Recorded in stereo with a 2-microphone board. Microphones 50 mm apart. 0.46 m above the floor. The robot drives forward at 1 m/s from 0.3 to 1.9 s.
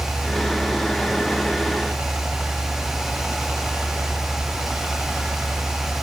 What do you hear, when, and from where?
0.0 s a helicopter: 45° right (ahead or behind); by 6.0 s 55° right (ahead or behind)